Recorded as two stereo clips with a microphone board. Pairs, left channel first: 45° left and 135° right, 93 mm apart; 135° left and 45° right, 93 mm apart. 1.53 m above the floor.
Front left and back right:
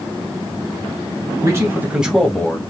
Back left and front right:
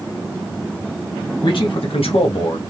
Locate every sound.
1.4 s a man speaking: 165° left, 1.1 m; by 2.6 s 110° left, 0.8 m